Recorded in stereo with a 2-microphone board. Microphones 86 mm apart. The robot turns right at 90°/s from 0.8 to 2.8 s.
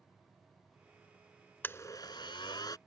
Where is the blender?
25° left; by 2.8 s 125° left.